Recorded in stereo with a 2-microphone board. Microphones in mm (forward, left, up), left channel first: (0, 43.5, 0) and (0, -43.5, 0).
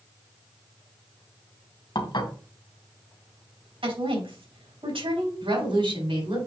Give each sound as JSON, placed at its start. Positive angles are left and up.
{"t": 1.9, "sound": "dishes clattering", "side_deg": 60, "distance_m": 2.0}
{"t": 3.8, "sound": "a woman speaking", "side_deg": -75, "distance_m": 4.0}
{"t": 5.4, "sound": "a woman speaking", "side_deg": -70, "distance_m": 5.0}